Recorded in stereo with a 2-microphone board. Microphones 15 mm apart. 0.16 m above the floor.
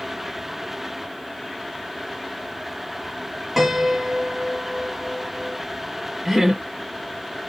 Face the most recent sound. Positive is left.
turn(degrees=-10)  # may be behind; listen again after turning